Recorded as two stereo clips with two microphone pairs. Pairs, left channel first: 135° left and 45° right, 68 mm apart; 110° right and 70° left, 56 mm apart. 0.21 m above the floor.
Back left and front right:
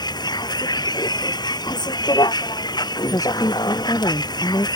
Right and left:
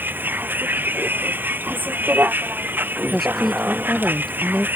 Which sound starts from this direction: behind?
A woman speaking, at 3.1 s.